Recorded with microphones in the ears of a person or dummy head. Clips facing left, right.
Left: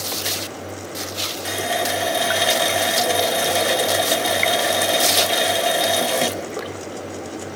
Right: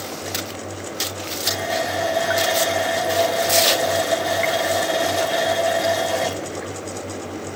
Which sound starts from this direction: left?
A running tap, at 1.4 s.